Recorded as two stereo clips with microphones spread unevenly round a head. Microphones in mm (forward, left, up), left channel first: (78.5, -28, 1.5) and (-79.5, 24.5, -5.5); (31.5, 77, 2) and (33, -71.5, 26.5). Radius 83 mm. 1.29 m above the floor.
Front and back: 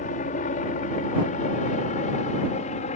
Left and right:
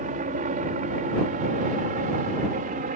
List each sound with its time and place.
0.0 s a helicopter: 60° right; by 3.0 s 65° right